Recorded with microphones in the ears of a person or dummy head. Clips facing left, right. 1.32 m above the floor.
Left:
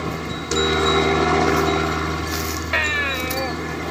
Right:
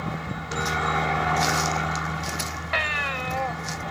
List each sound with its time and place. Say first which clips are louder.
0.0 s a helicopter: left 6 dB; 60° left (ahead or behind)
2.7 s a baby crying: left 5 dB; 45° left (ahead or behind)